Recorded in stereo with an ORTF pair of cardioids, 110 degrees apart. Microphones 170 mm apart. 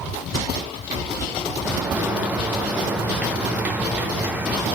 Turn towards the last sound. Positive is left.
turn(degrees=-10)